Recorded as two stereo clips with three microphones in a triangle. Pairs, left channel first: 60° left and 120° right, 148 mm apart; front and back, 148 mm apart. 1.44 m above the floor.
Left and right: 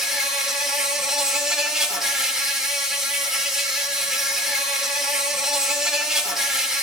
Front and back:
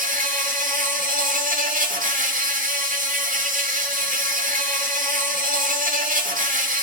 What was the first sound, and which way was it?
An insect, 155° left.